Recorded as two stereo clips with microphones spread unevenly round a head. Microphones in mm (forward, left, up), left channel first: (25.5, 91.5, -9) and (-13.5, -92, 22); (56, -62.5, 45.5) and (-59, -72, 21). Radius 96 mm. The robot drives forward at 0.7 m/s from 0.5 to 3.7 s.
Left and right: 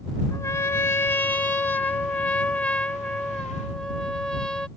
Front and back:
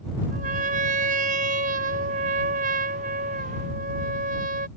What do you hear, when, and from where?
0.3 s a trumpet: 155° left; by 4.7 s 165° left